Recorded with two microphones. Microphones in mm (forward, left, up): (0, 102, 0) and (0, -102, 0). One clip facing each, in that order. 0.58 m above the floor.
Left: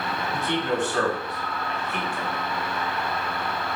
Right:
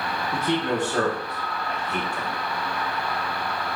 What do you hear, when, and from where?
0.3 s a man speaking: 40° right (ahead or behind), 1.5 m